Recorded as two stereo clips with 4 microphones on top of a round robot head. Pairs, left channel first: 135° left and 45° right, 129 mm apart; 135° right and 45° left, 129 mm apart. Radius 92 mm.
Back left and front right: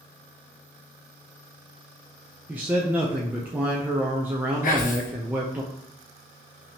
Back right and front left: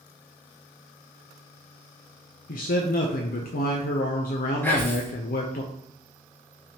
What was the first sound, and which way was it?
A man speaking, 120° right.